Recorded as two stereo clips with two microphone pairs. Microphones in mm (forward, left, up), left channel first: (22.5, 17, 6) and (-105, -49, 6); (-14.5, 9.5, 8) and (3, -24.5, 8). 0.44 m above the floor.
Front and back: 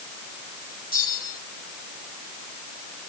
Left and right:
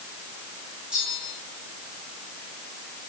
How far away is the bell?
About 8 m.